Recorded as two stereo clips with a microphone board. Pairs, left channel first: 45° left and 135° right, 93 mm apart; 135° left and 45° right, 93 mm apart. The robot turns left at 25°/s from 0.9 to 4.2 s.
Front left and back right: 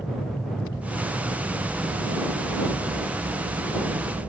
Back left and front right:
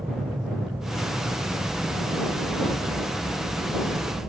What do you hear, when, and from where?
0.0 s an aircraft: 15° right; by 4.3 s 100° right